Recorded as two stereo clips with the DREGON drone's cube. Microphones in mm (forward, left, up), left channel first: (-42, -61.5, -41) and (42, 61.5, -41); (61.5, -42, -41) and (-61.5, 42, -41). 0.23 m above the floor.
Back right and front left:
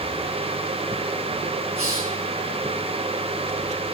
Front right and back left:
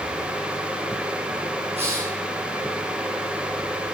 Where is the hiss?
100° left, 2.0 m.